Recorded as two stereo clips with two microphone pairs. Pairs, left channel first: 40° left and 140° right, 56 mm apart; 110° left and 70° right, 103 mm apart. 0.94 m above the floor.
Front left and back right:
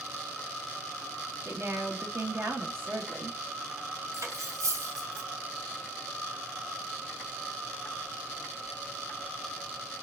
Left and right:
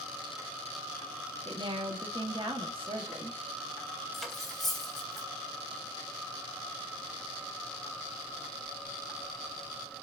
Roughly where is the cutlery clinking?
Behind.